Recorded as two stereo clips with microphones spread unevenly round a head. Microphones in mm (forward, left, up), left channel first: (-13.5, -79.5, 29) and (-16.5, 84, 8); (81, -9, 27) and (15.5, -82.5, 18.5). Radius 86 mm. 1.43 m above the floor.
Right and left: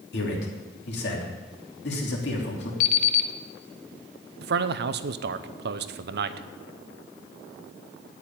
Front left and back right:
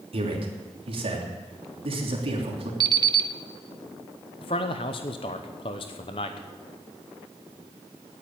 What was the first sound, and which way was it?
A man speaking, 110° right.